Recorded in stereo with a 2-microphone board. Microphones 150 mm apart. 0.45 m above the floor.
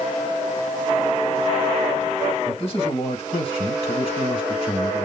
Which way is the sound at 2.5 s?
40° left (ahead or behind).